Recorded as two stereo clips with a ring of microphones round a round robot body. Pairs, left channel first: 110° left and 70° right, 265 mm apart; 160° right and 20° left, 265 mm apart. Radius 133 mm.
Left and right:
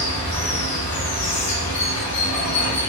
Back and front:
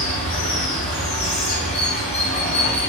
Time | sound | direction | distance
0.0 | running water | 135° left | 1.9 m